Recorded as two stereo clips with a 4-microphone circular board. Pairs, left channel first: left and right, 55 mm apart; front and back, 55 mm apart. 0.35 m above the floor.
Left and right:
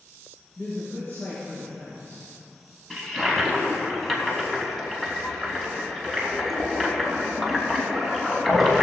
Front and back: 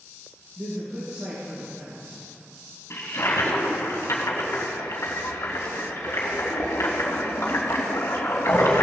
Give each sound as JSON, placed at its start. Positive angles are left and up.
{"t": 0.6, "sound": "a man speaking", "azimuth_deg": 140, "distance_m": 4.5}
{"t": 2.9, "sound": "a toilet flushing", "azimuth_deg": 5, "distance_m": 2.5}